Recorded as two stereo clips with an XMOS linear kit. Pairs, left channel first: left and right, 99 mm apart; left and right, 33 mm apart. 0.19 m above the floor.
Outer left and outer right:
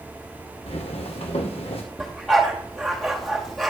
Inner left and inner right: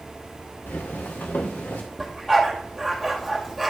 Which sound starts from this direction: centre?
A dog barking, at 2.0 s.